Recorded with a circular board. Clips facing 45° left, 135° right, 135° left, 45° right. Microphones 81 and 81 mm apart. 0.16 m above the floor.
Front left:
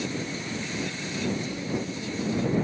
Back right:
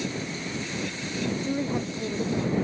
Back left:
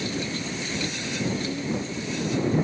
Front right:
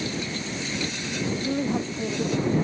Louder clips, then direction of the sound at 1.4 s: Back right 3 dB, front right 3 dB; 80° right.